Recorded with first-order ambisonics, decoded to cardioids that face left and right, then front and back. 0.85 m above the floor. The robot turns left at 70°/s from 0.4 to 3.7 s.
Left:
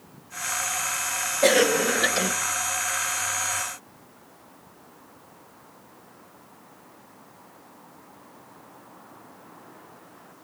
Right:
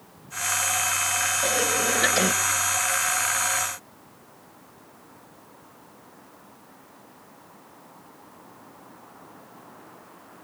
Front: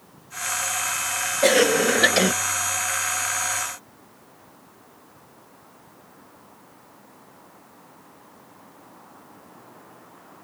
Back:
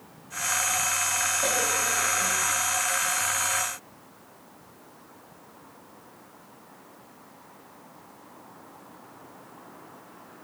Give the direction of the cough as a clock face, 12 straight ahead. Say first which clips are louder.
Left 9 dB, front 8 dB; 10 o'clock.